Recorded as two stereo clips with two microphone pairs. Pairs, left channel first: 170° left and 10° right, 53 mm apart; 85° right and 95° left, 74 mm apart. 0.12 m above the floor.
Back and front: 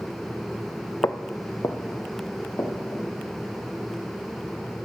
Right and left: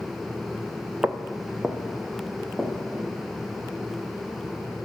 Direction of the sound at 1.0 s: 155° left.